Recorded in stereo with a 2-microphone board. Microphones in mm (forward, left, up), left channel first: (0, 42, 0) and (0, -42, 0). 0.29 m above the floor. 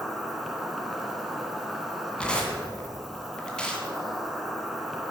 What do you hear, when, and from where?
0.0 s an insect: 5° right (ahead or behind), 1.7 m
2.2 s tearing paper: 10° left (ahead or behind), 2 m